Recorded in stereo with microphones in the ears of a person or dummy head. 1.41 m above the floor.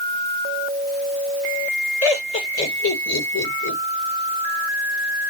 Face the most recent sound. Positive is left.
turn(degrees=90)